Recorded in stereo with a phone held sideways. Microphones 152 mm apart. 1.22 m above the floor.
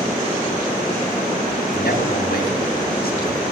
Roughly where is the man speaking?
Left.